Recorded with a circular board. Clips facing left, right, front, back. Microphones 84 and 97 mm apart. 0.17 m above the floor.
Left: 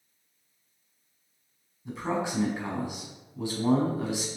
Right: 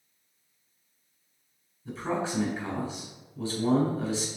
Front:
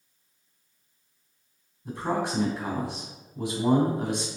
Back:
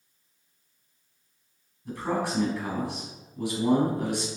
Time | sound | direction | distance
1.9 | a man speaking | 35° left | 1.3 m